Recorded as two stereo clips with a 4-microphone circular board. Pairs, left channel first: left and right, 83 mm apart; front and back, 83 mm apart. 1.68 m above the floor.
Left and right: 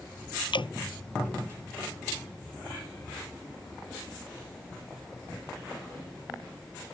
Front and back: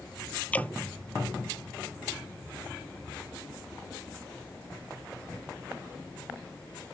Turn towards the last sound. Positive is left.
turn(degrees=75)